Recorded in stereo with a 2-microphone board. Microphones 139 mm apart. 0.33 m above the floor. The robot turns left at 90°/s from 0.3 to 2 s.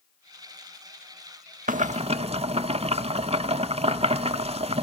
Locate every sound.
1.7 s boiling: 75° right (ahead or behind), 0.5 m; by 4.8 s 50° right (ahead or behind), 0.5 m